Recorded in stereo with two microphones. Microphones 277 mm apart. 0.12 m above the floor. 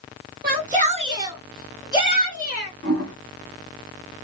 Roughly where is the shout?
Right.